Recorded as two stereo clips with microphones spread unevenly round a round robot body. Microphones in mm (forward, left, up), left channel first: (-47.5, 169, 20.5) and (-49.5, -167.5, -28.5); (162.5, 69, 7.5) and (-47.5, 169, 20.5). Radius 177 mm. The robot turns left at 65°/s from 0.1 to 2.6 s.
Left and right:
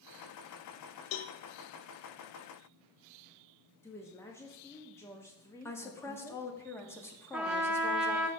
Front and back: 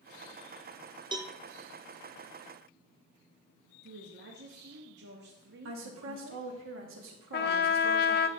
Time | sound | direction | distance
1.1 | a cowbell | 80° left | 0.7 m
3.8 | a woman speaking | straight behind | 0.8 m
5.7 | a woman speaking | 175° left | 1.4 m
7.3 | a trumpet | 10° right | 0.5 m